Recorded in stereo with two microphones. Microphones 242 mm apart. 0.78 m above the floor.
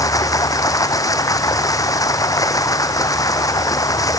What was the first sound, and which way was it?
Running water, 15° left (ahead or behind).